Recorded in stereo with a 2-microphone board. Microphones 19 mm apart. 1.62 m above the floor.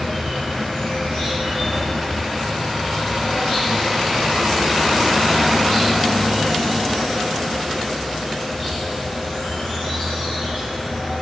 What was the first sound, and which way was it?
An insect, 55° left (ahead or behind).